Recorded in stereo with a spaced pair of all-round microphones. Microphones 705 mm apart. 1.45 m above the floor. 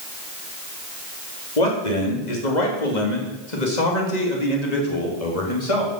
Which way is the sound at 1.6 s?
75° left (ahead or behind).